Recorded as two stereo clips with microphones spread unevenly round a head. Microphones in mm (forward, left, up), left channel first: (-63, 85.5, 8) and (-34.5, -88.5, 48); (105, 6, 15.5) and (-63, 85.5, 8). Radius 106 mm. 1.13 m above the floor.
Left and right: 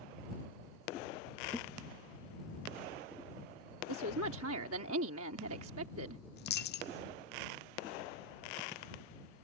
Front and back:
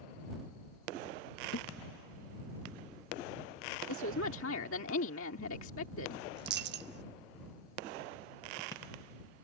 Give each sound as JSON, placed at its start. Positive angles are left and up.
{"t": 1.5, "sound": "a thud", "azimuth_deg": -5}
{"t": 3.9, "sound": "a woman speaking", "azimuth_deg": -60}
{"t": 6.4, "sound": "a dropped coin", "azimuth_deg": 130}